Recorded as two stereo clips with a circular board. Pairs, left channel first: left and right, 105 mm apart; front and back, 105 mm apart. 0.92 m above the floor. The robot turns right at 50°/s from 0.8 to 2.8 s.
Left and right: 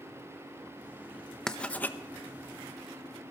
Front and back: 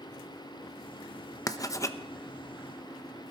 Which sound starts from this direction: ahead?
Writing, at 1.5 s.